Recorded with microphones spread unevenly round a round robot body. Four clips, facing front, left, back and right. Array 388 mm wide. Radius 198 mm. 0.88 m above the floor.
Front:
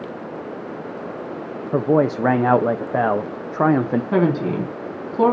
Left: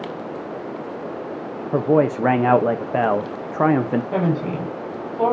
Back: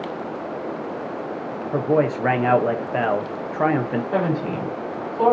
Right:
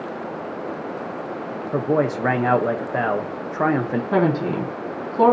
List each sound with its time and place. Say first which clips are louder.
1.7 s a man speaking: left 3 dB, front 2 dB; 30° left, 0.9 m
4.1 s a woman speaking: right 2 dB, front 5 dB; 35° right, 2 m